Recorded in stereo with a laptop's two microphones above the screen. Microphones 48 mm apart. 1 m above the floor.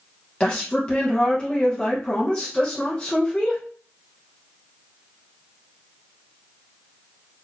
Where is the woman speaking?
20° left (ahead or behind), 0.9 m.